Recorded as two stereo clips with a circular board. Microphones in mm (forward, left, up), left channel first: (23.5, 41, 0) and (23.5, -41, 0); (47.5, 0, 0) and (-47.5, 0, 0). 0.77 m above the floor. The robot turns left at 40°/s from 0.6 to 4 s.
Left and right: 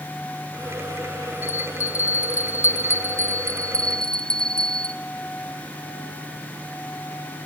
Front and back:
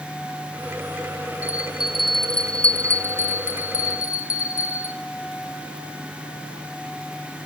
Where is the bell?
115° left, 0.6 m; by 5.0 s 15° left, 0.6 m.